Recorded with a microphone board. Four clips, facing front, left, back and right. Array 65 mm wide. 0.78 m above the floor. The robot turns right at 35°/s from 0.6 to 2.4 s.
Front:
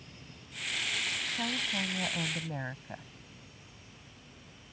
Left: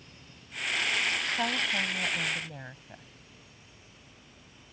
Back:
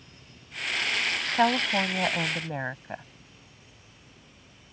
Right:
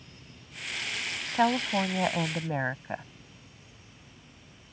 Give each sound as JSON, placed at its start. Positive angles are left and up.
{"t": 1.3, "sound": "a woman speaking", "azimuth_deg": -155}